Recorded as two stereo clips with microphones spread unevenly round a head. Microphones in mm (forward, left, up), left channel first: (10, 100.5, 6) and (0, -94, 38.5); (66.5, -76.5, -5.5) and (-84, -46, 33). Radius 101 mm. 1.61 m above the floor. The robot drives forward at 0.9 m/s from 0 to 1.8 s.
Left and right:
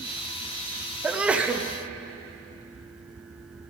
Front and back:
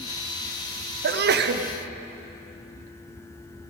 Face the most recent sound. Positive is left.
turn(degrees=180)